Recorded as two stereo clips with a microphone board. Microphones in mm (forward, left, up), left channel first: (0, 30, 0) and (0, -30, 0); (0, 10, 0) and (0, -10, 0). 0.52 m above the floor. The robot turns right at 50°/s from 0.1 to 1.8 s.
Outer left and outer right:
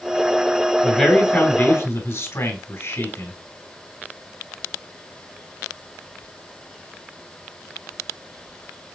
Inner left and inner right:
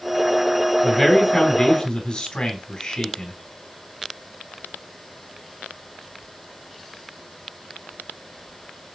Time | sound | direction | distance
0.8 | a man speaking | 5° left | 2 m